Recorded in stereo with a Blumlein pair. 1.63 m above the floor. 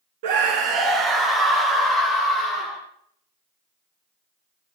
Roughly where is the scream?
Ahead right.